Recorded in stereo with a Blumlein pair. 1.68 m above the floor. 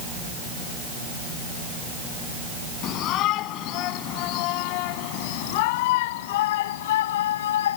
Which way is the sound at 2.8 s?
35° left.